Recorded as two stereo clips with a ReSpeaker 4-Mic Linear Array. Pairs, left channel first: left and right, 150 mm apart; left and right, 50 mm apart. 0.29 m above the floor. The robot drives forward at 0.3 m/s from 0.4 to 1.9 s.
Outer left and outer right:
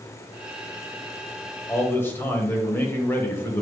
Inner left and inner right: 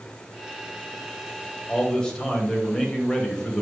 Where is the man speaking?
15° left (ahead or behind), 1.2 m.